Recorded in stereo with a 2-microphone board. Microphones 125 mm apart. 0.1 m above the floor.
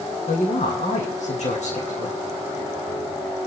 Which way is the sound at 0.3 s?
70° left (ahead or behind).